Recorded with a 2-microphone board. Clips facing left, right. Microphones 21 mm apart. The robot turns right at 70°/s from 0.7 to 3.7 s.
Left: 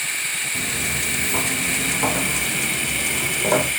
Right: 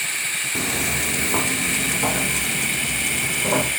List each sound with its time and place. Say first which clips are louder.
0.6 s footsteps: right 1 dB; 65° right (ahead or behind), 0.7 m; by 3.7 s 40° left (ahead or behind), 2.5 m